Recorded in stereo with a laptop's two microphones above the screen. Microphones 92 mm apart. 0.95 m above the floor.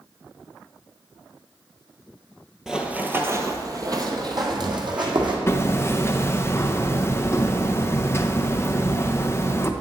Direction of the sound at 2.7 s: 5° right (ahead or behind).